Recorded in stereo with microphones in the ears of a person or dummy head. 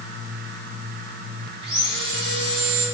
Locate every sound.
1.6 s sawing: 30° right (ahead or behind), 3.5 m